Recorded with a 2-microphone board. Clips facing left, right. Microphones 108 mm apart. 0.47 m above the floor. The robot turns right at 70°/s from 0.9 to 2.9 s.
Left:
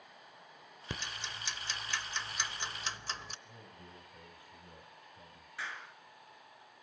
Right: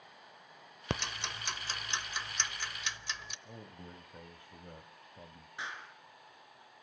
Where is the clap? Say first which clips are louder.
Even; 20° right (ahead or behind), 5 m.